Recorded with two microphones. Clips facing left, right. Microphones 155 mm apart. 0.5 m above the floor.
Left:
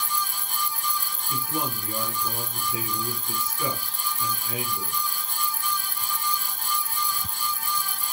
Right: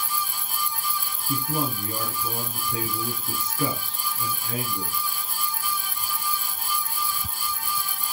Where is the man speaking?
45° right (ahead or behind), 4 m.